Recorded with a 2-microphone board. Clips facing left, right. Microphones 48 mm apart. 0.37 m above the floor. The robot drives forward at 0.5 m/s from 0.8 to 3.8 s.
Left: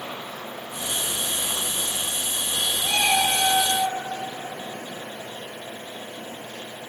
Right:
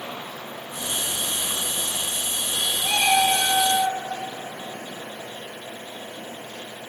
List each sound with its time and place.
2.8 s a cat meowing: 40° right (ahead or behind), 2 m; by 4.0 s 30° right (ahead or behind), 2.5 m